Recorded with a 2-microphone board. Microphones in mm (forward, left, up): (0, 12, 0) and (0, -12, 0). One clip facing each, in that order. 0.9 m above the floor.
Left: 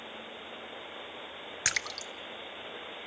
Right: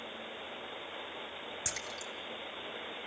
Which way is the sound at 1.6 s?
65° left (ahead or behind).